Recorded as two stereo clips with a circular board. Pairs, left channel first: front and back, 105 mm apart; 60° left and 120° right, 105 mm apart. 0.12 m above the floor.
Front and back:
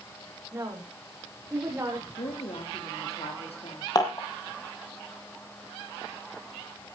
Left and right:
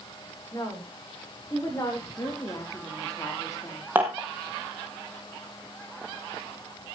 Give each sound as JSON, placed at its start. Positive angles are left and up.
{"t": 0.5, "sound": "a woman speaking", "azimuth_deg": 115, "distance_m": 8.0}
{"t": 2.2, "sound": "a woman speaking", "azimuth_deg": 5, "distance_m": 5.0}
{"t": 4.0, "sound": "dishes clattering", "azimuth_deg": -50, "distance_m": 3.0}